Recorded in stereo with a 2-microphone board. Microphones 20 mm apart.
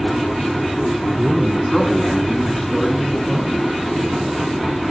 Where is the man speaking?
30° right (ahead or behind), 1.4 m; by 4.5 s 65° left (ahead or behind), 2.5 m.